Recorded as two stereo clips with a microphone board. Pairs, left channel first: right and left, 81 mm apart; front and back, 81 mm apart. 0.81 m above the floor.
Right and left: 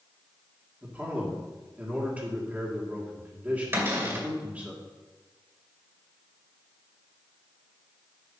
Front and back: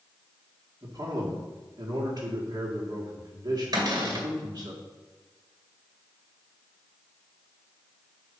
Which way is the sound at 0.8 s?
160° left.